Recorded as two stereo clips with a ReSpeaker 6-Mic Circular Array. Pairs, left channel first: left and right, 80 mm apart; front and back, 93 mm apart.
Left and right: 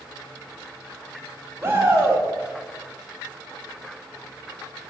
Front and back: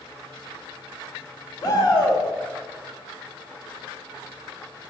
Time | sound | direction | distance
1.6 | a shout | 35° right | 1.4 m